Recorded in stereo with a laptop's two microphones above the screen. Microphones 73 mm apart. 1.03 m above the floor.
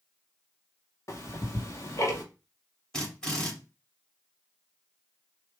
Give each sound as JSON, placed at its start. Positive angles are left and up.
{"t": 1.1, "sound": "ticking", "side_deg": 45, "distance_m": 1.0}
{"t": 2.9, "sound": "a drill", "side_deg": 10, "distance_m": 2.0}